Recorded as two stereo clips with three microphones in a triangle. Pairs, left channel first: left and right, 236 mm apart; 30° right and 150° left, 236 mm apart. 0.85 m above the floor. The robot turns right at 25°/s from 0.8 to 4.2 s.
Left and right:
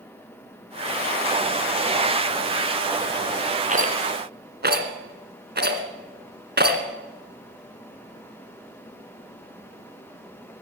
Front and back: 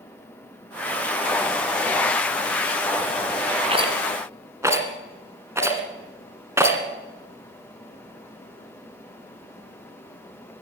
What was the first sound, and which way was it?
A rattle, 145° right.